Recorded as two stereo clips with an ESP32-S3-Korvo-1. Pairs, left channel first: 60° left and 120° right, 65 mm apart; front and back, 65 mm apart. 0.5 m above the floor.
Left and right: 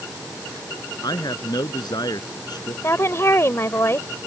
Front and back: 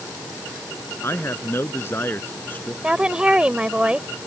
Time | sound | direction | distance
1.0 | a man speaking | 50° left | ?
2.8 | a woman speaking | 105° left | ?